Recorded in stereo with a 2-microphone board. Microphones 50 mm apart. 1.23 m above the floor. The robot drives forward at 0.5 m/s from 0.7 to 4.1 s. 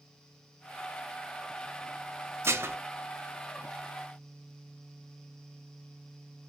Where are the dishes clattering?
60° right (ahead or behind), 1.2 m; by 2.8 s 55° right (ahead or behind), 1.3 m.